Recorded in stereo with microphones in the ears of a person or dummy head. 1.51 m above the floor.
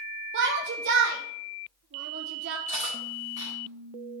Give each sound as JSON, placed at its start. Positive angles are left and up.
{"t": 0.3, "sound": "a shout", "side_deg": -60, "distance_m": 0.8}
{"t": 2.7, "sound": "cutlery clinking", "side_deg": -25, "distance_m": 4.0}